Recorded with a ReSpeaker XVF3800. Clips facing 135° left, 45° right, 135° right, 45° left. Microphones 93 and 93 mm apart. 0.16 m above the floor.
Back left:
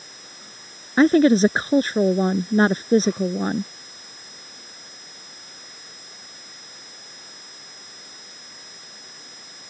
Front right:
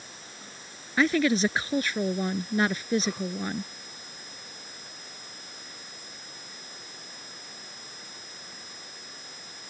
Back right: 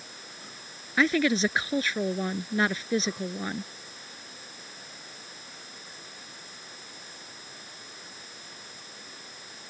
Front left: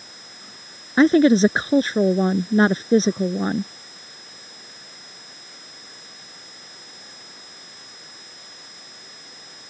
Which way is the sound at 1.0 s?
90° left.